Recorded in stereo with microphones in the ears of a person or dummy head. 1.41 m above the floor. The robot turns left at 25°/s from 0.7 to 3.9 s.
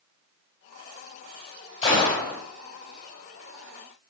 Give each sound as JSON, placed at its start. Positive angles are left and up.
{"t": 1.8, "sound": "a gunshot", "side_deg": 30, "distance_m": 2.5}